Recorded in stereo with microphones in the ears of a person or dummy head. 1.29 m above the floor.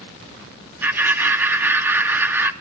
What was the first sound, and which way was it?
Laughter, 10° right (ahead or behind).